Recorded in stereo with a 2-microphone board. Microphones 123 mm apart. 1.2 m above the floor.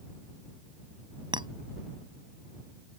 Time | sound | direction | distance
1.3 | a clink | 35° right (ahead or behind) | ?